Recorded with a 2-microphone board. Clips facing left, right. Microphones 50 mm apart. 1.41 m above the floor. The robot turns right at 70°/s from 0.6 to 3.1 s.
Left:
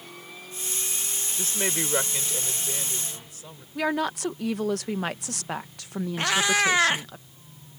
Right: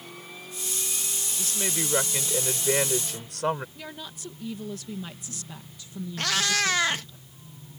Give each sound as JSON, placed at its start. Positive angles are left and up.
{"t": 1.4, "sound": "a woman speaking", "azimuth_deg": 140}
{"t": 3.8, "sound": "a woman speaking", "side_deg": 75}
{"t": 6.2, "sound": "a cat meowing", "side_deg": 20}